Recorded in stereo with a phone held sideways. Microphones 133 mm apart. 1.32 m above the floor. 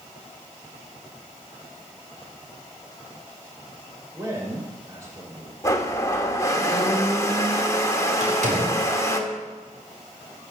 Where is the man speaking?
25° right (ahead or behind), 5.5 m.